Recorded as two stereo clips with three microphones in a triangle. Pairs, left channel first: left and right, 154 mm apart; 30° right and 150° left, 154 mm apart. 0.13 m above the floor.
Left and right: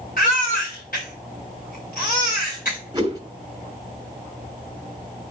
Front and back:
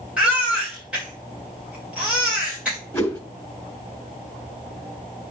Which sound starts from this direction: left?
A baby crying, at 0.2 s.